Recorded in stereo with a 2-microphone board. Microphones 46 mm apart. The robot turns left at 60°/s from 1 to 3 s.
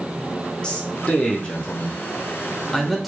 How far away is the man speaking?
About 0.8 m.